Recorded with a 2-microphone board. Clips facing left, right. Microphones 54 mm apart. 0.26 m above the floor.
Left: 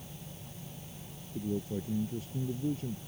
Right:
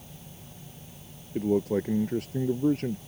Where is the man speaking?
75° right (ahead or behind).